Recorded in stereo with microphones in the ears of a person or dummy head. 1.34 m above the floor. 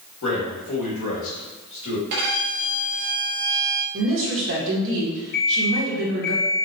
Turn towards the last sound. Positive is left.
turn(degrees=50)  # may be behind; listen again after turning